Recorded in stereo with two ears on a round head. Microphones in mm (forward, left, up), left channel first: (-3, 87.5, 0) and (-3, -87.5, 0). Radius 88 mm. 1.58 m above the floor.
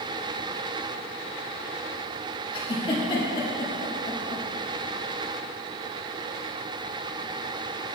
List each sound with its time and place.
2.5 s a giggle: 25° left (ahead or behind), 1.3 m